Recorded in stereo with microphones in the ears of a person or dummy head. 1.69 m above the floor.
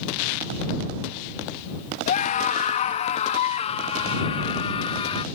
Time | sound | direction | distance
2.1 | a scream | 35° left (ahead or behind) | ?